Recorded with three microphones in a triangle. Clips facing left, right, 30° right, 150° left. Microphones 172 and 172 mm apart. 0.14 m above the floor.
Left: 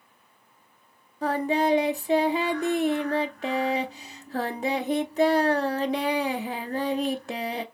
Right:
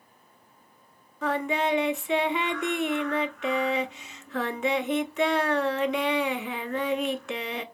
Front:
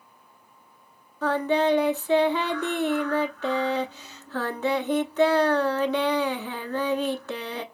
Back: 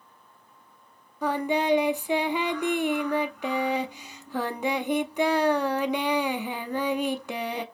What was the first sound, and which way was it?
Singing, 85° left.